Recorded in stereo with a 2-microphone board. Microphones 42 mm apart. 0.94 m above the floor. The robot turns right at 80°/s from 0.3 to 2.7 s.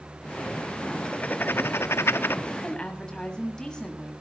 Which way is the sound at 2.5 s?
Centre (ahead or behind).